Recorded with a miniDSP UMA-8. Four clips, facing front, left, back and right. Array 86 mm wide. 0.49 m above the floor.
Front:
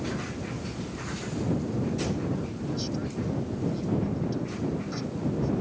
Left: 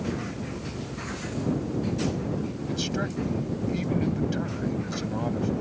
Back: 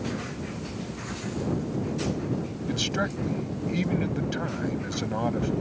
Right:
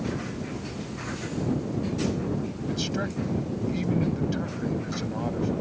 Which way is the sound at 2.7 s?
Straight behind.